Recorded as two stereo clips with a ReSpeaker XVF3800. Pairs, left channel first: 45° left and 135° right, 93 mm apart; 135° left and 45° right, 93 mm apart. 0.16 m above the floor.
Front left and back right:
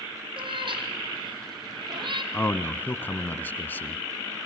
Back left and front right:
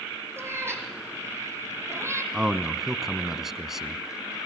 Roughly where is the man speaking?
Ahead left.